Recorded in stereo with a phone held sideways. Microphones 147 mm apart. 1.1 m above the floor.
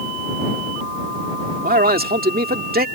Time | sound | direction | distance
1.6 | a man speaking | 85° right | ?